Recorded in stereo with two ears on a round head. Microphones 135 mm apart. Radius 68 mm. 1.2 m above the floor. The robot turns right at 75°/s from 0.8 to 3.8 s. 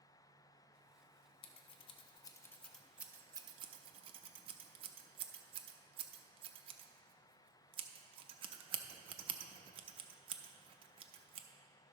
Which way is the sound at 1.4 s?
35° left (ahead or behind).